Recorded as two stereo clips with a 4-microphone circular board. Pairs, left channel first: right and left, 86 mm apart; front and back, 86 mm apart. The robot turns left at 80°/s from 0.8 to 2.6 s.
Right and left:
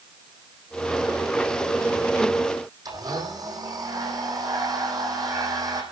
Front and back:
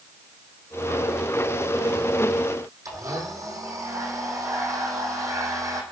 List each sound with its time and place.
2.9 s a blender: 130° left, 3.5 m